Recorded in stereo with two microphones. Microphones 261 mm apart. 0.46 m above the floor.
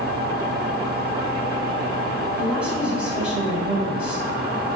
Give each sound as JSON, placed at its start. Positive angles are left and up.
{"t": 2.4, "sound": "a woman speaking", "side_deg": -5, "distance_m": 3.0}